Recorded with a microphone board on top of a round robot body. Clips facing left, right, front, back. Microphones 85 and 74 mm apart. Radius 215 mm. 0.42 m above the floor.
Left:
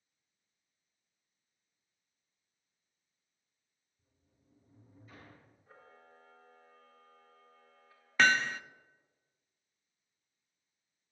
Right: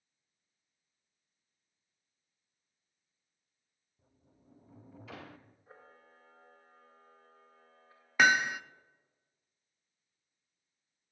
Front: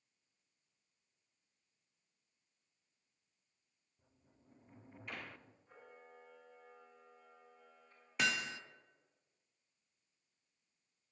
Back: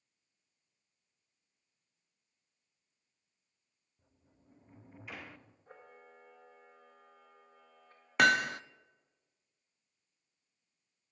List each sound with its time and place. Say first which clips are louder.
4.0 s a sliding door: right 9 dB, back 2 dB; 95° right, 0.5 m
5.7 s a camera shutter: even, back 3 dB; 150° right, 3.5 m
8.2 s hammering: right 1 dB, back 11 dB; 170° right, 0.5 m